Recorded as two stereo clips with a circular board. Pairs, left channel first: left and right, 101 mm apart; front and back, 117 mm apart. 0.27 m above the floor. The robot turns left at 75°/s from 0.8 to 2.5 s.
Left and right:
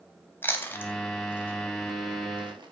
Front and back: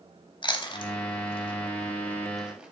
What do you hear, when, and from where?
0.4 s chewing: 25° left, 0.5 m; by 2.7 s 100° right, 0.5 m